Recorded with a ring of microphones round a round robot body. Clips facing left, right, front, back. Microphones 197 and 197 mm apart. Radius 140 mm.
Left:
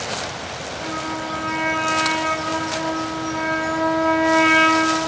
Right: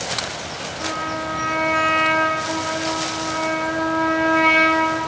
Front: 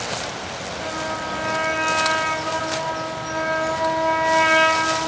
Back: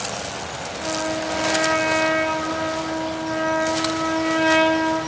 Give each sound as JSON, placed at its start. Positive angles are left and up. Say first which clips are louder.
{"t": 0.8, "sound": "a trumpet", "louder": "even, back 5 dB", "azimuth_deg": 0, "distance_m": 1.9}